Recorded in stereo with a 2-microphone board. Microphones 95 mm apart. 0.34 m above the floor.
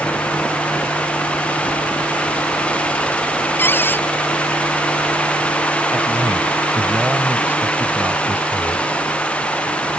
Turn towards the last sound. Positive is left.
turn(degrees=-20)  # may be behind; listen again after turning